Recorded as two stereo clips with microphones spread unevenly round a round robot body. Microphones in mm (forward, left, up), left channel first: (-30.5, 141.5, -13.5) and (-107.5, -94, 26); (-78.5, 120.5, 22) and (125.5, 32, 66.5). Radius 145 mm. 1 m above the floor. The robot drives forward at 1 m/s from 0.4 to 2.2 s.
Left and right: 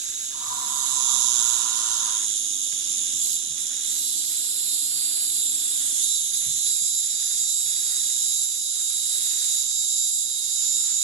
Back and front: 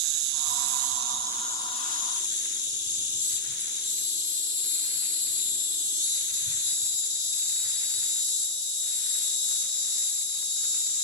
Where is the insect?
40° right, 1.0 m; by 11.0 s 150° right, 1.2 m.